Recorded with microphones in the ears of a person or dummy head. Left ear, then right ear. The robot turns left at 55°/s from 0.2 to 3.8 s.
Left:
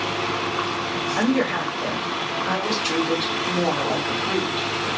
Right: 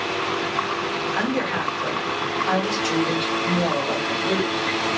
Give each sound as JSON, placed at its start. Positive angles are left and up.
{"t": 1.1, "sound": "a woman speaking", "azimuth_deg": -50, "distance_m": 1.9}